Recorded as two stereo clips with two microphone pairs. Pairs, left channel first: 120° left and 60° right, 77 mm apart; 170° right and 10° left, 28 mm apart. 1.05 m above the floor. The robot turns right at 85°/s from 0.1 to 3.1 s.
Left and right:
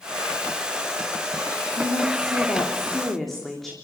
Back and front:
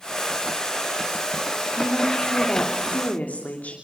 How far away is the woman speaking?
About 3 m.